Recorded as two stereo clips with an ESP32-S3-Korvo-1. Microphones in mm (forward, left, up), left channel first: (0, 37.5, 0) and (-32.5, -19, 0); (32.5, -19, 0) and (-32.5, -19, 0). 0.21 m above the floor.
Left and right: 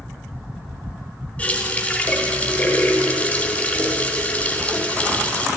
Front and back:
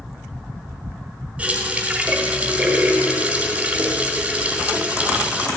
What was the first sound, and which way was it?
A running tap, 120° left.